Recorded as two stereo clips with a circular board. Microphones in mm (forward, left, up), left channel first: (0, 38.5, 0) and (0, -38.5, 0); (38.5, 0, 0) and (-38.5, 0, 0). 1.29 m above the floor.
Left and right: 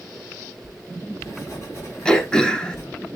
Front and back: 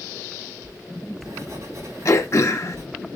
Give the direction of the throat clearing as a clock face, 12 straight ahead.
11 o'clock.